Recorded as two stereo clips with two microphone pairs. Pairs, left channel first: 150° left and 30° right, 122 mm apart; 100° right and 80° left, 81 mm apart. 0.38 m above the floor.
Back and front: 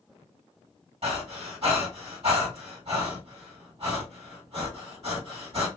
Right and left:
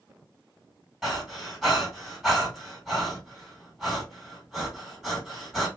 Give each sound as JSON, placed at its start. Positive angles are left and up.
{"t": 1.0, "sound": "breathing", "azimuth_deg": -10, "distance_m": 2.0}